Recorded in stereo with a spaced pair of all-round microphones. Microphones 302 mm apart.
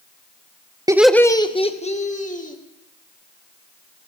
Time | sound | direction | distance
0.9 | laughter | 10° right (ahead or behind) | 0.5 m